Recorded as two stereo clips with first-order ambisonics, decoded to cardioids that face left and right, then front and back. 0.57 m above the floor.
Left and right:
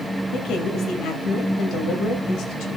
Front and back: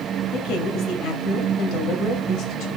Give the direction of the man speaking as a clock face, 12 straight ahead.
11 o'clock.